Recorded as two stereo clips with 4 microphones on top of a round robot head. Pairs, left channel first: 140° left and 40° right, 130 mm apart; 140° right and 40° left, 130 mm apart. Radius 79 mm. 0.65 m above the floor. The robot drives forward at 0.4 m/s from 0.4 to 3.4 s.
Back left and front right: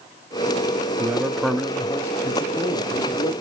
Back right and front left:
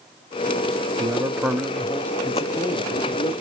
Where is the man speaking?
10° left, 0.5 m; by 3.3 s 175° left, 0.8 m.